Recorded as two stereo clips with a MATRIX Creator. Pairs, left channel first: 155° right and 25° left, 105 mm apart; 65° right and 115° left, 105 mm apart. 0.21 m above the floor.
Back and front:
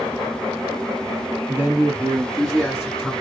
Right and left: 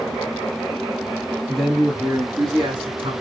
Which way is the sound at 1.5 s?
15° left.